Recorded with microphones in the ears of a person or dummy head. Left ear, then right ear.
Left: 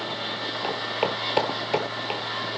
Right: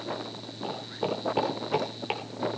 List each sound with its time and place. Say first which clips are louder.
0.6 s footsteps: left 4 dB; 45° left (ahead or behind), 1.6 m; by 2.2 s centre (ahead or behind), 1.4 m